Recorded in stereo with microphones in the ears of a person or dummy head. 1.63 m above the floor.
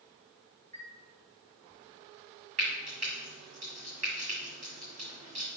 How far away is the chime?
About 1.6 m.